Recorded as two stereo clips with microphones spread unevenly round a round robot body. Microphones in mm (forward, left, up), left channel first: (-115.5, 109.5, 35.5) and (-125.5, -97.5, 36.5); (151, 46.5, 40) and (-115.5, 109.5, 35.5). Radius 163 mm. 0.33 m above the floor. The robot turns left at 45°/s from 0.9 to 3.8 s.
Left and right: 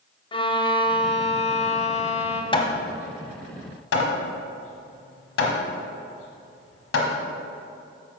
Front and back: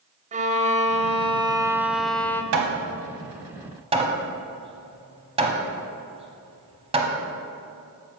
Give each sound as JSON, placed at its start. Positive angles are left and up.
{"t": 0.3, "sound": "a violin", "azimuth_deg": 130, "distance_m": 0.6}
{"t": 2.5, "sound": "hammering", "azimuth_deg": 155, "distance_m": 1.2}